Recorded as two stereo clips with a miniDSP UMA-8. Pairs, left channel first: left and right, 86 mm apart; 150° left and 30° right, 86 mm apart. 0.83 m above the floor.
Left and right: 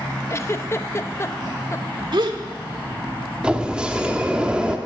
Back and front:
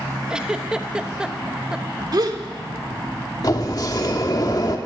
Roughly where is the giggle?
Ahead left.